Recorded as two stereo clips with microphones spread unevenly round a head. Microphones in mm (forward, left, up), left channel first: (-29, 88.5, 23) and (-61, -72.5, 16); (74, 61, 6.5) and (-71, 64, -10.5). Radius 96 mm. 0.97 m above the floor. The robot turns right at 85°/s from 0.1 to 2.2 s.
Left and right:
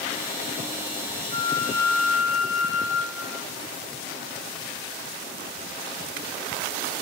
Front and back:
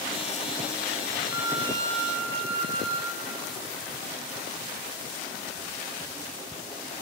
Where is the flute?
110° left, 0.9 m; by 3.5 s 175° right, 0.9 m.